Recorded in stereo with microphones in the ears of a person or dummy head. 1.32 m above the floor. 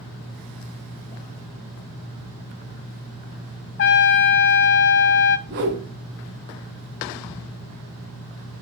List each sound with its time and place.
3.8 s a trumpet: 60° left (ahead or behind), 2 m
5.5 s a whoosh: 55° right (ahead or behind), 2 m